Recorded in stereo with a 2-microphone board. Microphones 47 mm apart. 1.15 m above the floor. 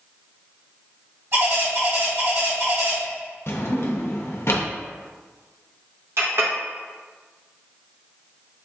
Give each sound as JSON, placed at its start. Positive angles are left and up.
{"t": 1.3, "sound": "a bird", "side_deg": -60, "distance_m": 2.0}
{"t": 3.5, "sound": "a drawer", "side_deg": 60, "distance_m": 0.6}
{"t": 6.2, "sound": "a clink", "side_deg": -60, "distance_m": 0.9}